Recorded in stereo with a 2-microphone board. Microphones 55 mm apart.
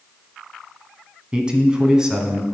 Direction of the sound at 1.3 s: 20° right (ahead or behind).